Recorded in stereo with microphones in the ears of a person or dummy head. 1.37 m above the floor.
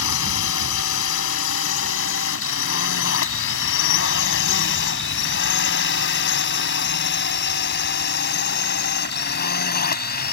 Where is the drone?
70° left (ahead or behind); by 10.3 s 45° left (ahead or behind).